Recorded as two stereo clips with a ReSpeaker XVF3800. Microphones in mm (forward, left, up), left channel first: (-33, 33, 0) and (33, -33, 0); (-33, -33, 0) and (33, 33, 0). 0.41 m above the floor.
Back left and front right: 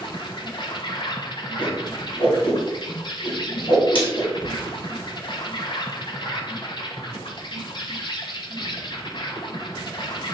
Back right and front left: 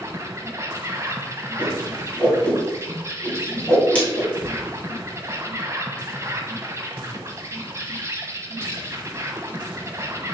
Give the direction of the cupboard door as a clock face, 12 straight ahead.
8 o'clock.